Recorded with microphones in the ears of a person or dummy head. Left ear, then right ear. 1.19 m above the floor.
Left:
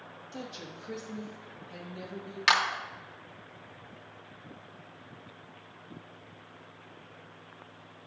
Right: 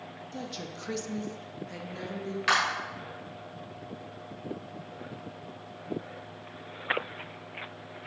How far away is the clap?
About 1.0 m.